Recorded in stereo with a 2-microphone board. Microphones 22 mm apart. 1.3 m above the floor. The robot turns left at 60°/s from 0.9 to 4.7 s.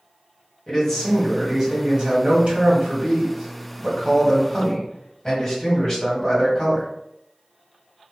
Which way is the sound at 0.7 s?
25° left.